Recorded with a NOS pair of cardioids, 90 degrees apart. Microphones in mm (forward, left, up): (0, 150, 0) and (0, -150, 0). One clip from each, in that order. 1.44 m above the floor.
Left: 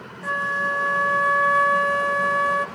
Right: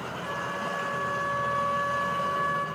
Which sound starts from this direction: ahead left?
A flute, at 0.2 s.